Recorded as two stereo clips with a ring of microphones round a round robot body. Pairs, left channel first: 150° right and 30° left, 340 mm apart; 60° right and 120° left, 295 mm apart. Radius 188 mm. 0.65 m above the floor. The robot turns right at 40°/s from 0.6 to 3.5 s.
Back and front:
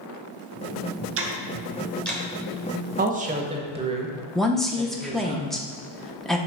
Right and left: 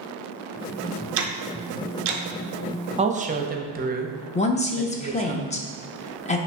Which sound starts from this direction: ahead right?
A woman speaking, at 4.3 s.